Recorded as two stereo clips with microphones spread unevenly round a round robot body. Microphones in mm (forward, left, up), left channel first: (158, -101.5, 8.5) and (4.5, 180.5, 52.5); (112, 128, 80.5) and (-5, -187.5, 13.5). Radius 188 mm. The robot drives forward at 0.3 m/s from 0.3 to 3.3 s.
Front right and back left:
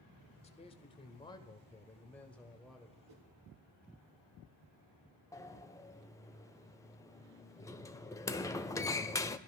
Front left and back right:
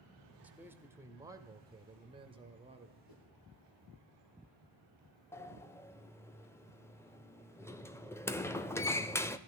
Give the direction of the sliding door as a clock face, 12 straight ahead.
1 o'clock.